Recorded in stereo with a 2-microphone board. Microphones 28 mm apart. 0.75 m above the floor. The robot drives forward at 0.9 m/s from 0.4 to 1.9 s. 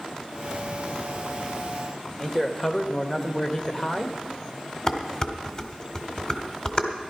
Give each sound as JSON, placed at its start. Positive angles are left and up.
{"t": 2.2, "sound": "a man speaking", "side_deg": 20, "distance_m": 1.0}
{"t": 4.9, "sound": "dishes clattering", "side_deg": 35, "distance_m": 1.3}